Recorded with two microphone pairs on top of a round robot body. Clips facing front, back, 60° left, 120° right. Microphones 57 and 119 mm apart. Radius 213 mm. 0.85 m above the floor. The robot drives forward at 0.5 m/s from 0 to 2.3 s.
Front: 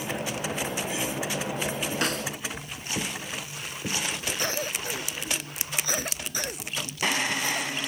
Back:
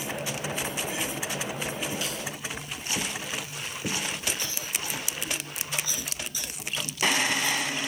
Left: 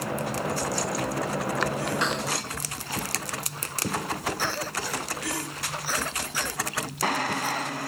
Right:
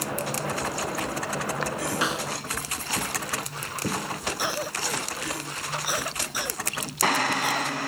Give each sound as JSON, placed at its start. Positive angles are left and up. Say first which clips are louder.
{"t": 2.0, "sound": "a snare drum", "louder": "front 5 dB, even", "azimuth_deg": -35}
{"t": 4.4, "sound": "a cough", "louder": "front 5 dB, right 1 dB", "azimuth_deg": -40}